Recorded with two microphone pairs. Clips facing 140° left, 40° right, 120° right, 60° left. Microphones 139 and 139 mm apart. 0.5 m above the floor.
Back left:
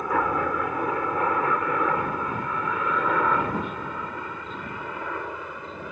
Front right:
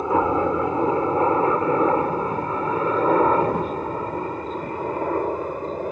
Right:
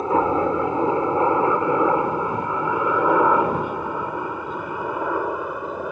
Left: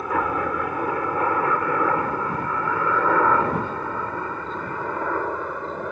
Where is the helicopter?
80° right; by 5.9 s 40° right.